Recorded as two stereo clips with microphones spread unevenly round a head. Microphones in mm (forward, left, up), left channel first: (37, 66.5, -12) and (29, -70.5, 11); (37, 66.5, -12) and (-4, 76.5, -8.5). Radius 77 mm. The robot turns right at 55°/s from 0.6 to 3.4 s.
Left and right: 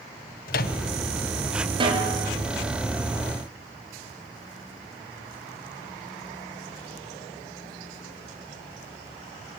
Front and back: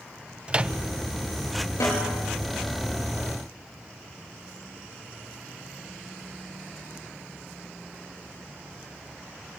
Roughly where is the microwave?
Left.